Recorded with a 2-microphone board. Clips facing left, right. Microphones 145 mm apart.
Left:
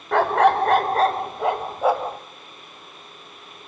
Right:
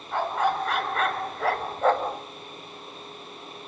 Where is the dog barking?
85° left, 0.6 m; by 2.2 s 5° left (ahead or behind), 1.3 m.